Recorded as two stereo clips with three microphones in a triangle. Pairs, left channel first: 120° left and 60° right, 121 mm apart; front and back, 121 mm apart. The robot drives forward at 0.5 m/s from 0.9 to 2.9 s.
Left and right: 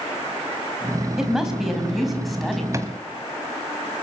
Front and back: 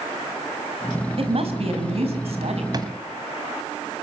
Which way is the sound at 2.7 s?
125° right.